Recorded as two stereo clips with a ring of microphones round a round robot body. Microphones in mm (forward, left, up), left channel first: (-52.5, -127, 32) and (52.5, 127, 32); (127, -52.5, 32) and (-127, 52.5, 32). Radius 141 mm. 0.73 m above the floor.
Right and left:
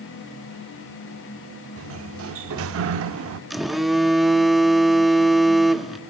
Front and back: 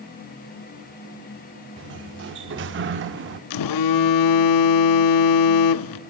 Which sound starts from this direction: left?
A sliding door, at 1.8 s.